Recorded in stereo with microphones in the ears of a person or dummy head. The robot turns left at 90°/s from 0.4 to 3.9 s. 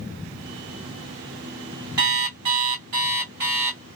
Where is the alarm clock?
25° right, 1.3 m; by 3.8 s 170° left, 1.3 m.